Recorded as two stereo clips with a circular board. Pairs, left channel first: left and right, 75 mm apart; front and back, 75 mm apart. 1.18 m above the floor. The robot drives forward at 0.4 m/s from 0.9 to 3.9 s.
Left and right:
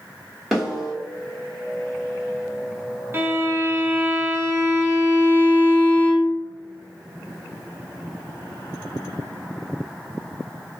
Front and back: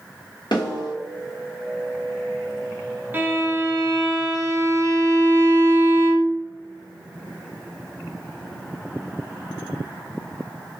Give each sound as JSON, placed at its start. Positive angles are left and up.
{"t": 0.5, "sound": "a snare drum", "azimuth_deg": -5, "distance_m": 1.3}
{"t": 3.1, "sound": "a violin", "azimuth_deg": -130, "distance_m": 0.6}